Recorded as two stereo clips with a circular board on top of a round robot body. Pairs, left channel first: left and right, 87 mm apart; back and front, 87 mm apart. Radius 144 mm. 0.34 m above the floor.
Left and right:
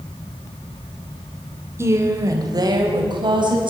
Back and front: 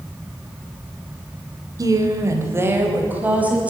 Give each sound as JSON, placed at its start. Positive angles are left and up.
{"t": 1.8, "sound": "a woman speaking", "azimuth_deg": -35, "distance_m": 2.5}